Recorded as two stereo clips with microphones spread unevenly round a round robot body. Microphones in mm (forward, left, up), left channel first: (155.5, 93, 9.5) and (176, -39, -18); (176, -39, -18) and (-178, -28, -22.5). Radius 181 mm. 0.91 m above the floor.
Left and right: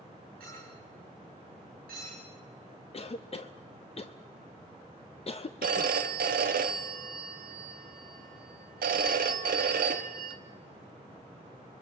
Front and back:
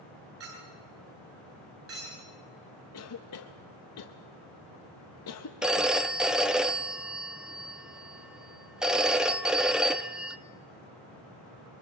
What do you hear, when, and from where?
0.4 s a clink: 135° right, 9 m
2.9 s a cough: 45° left, 0.7 m
5.6 s a phone ringing: 95° right, 0.7 m